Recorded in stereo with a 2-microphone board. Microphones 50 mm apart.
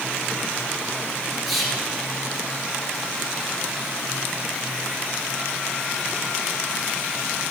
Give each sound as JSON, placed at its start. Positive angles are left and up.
{"t": 1.5, "sound": "whispering", "side_deg": 0, "distance_m": 3.0}